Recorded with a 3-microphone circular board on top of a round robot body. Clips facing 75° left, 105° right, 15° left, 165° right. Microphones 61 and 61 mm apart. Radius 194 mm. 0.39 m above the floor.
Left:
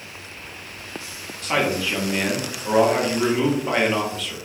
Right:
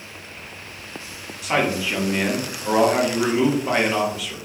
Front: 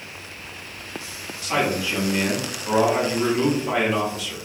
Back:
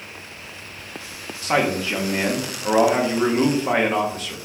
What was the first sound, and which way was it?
A man speaking, 175° left.